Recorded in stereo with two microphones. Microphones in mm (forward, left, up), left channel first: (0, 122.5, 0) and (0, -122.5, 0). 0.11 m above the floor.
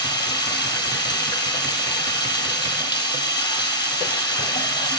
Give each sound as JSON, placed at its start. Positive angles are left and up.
{"t": 0.0, "sound": "running water", "side_deg": 15, "distance_m": 1.6}